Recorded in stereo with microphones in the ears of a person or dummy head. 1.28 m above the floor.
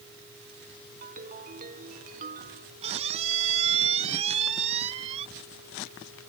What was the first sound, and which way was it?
A ringtone, 45° right (ahead or behind).